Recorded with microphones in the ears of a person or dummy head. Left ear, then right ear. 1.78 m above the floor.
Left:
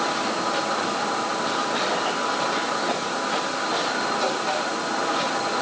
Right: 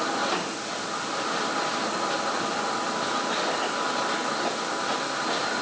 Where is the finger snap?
No finger snap in this recording.